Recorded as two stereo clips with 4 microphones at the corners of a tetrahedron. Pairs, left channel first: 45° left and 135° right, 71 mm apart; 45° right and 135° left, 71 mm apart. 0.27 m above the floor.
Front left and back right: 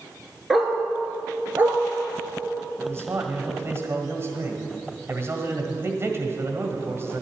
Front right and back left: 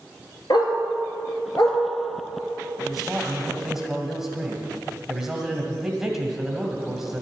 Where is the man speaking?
140° right, 1.8 m.